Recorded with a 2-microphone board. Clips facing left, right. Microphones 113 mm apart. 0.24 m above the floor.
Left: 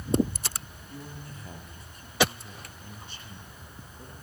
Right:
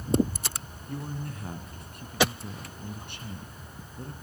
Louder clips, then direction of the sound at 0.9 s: Right 7 dB; 60° right (ahead or behind).